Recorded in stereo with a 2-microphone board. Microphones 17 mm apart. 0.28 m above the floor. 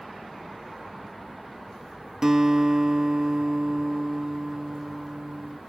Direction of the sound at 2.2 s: 35° right (ahead or behind).